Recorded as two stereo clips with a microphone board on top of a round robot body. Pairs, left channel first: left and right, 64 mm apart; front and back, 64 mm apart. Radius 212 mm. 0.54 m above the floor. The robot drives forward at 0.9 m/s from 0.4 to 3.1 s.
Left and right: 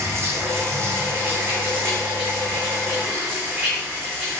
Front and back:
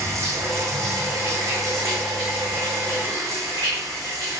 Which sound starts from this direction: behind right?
Running water, at 0.0 s.